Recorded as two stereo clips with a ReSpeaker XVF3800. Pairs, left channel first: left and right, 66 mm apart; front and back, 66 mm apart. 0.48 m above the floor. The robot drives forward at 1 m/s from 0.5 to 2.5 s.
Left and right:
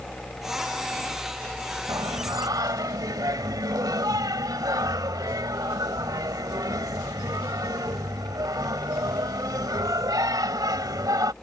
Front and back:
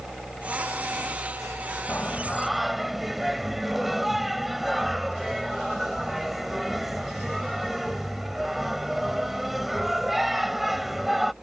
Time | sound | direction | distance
1.9 | singing | 70° right | ?